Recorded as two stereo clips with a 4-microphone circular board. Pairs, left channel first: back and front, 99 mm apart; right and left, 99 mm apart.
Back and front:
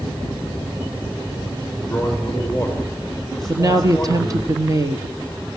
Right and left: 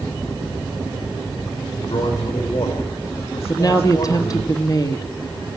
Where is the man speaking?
90° right, 6.5 m.